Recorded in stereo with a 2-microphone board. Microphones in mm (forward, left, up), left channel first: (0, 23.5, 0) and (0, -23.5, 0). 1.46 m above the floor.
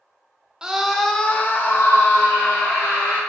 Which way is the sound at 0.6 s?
15° right (ahead or behind).